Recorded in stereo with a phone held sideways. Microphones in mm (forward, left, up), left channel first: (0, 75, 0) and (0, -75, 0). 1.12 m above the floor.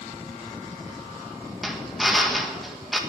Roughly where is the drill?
Centre.